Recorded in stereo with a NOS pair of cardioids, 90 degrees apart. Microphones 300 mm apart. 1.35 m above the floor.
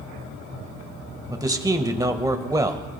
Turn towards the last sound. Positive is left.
turn(degrees=-15)